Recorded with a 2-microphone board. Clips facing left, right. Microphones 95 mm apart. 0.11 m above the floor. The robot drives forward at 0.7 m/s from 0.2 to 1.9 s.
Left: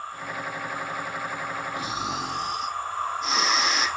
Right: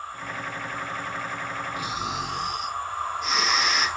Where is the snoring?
35° left (ahead or behind), 1.8 m.